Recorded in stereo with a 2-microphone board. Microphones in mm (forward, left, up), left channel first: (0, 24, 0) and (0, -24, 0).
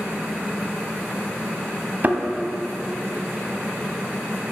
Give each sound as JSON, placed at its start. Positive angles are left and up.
{"t": 2.0, "sound": "a thud", "side_deg": -40, "distance_m": 0.9}